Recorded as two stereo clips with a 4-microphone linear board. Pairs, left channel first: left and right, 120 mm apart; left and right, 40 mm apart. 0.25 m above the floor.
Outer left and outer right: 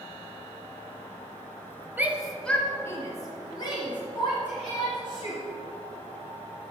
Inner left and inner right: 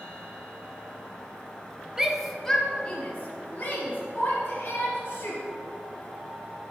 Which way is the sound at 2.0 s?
15° right (ahead or behind).